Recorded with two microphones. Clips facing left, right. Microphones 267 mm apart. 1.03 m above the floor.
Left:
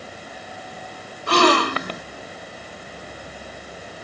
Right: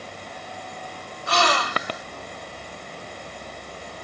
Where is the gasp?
65° left (ahead or behind).